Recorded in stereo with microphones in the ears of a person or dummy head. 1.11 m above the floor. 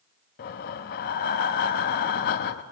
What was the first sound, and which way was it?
Breathing, 50° left (ahead or behind).